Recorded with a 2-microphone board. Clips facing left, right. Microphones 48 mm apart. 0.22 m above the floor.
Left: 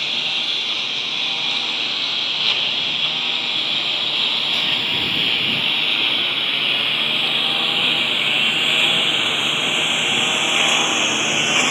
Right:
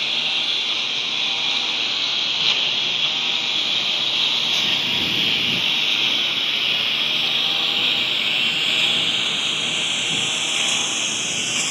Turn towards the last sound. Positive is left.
turn(degrees=40)  # may be behind; listen again after turning